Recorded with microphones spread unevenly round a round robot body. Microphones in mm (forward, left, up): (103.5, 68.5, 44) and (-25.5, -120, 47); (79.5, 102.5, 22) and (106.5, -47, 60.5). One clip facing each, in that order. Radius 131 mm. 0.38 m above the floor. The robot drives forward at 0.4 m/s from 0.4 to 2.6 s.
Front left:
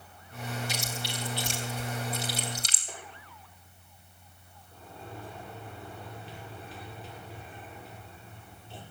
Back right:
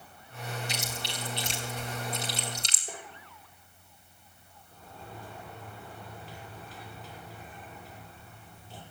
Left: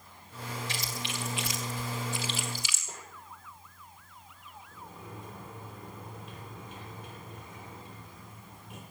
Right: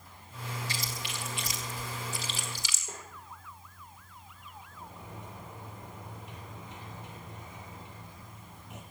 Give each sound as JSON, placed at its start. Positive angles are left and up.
{"t": 0.7, "sound": "chewing", "azimuth_deg": 165, "distance_m": 3.5}
{"t": 2.9, "sound": "tapping", "azimuth_deg": -170, "distance_m": 6.5}
{"t": 4.7, "sound": "a sliding door", "azimuth_deg": 145, "distance_m": 6.5}